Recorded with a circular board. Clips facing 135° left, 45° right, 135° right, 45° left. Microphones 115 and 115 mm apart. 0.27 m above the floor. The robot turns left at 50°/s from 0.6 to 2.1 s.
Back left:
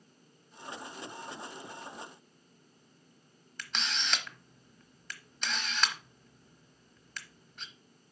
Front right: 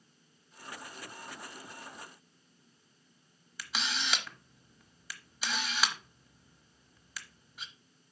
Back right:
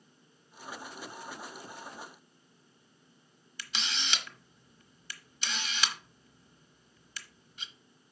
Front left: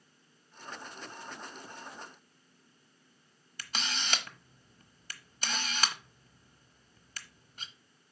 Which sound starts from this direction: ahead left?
A camera shutter, at 3.6 s.